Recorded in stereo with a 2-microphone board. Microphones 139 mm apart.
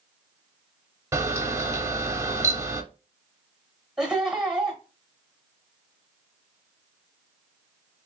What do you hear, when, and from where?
1.1 s a camera shutter: 20° right (ahead or behind), 0.6 m
4.0 s laughter: 5° right (ahead or behind), 1.3 m